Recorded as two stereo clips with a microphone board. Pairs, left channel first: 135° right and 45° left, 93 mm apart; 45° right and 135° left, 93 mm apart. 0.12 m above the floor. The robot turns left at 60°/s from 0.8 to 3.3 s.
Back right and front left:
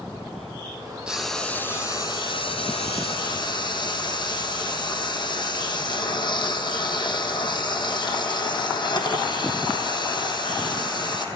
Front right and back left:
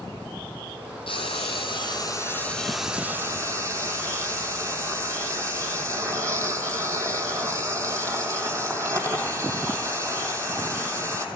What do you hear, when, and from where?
1.1 s frying: 35° right, 4 m; by 11.2 s 170° right, 4 m